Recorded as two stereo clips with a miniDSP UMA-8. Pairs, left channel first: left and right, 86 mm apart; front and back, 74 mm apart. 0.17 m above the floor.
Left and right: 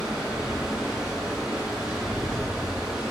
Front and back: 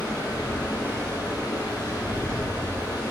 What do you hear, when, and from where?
0.0 s running water: 10° right, 3 m